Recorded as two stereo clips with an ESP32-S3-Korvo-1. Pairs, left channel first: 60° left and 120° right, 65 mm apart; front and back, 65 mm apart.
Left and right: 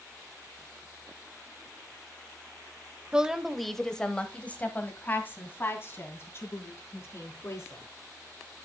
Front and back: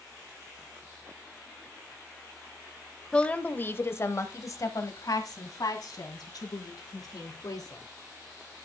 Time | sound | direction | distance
3.1 | a woman speaking | 60° right | 0.9 m